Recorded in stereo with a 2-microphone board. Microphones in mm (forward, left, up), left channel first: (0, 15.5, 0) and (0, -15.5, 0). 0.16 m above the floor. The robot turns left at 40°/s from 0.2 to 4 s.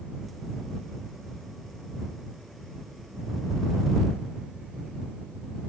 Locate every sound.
Only background noise.